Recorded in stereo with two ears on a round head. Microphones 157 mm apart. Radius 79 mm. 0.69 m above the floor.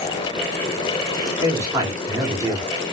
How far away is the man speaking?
About 1.5 m.